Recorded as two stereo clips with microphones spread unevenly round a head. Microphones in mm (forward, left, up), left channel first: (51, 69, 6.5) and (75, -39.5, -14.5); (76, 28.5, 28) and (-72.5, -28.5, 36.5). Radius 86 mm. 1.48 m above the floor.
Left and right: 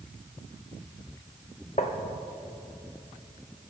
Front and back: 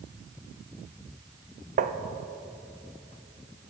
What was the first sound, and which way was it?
Tapping, 160° left.